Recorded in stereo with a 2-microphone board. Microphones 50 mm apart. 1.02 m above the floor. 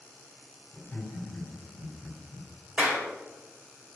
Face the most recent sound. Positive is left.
turn(degrees=-20)  # may be behind; listen again after turning